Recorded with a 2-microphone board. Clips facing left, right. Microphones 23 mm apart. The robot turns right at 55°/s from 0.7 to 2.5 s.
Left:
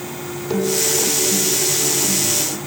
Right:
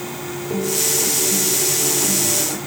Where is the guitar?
115° left; by 2.6 s 145° right.